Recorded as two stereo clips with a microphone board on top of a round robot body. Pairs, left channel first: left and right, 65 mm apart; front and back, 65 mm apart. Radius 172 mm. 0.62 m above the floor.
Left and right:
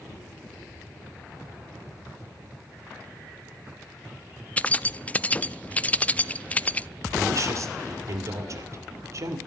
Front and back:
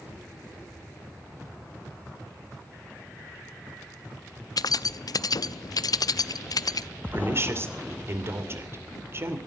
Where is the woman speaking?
130° right, 3 m.